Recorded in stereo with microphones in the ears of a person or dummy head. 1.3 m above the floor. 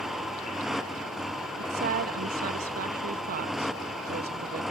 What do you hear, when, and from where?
0.0 s a motorcycle: centre (ahead or behind)
1.6 s a woman speaking: 50° right (ahead or behind)